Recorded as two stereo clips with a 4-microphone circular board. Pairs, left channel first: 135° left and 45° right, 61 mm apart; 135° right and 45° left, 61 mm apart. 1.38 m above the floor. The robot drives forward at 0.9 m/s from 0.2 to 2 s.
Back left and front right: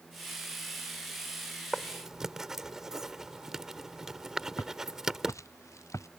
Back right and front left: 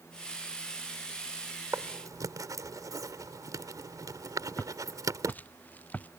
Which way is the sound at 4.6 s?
165° left.